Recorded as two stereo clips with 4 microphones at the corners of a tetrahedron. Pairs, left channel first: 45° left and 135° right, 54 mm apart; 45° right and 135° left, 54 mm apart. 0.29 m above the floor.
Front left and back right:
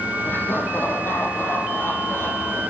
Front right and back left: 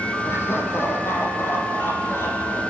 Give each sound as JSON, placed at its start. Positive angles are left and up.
{"t": 0.2, "sound": "laughter", "azimuth_deg": -5, "distance_m": 9.5}